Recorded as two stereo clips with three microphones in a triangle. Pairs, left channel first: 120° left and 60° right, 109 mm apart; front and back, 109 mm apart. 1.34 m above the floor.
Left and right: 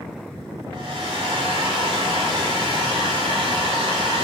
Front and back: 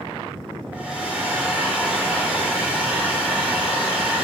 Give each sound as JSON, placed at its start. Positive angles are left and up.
{"t": 0.7, "sound": "a hair dryer", "azimuth_deg": -100, "distance_m": 3.5}